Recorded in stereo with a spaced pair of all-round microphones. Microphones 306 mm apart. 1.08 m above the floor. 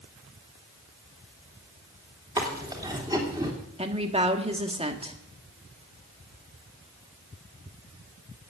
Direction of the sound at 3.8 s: 20° right (ahead or behind).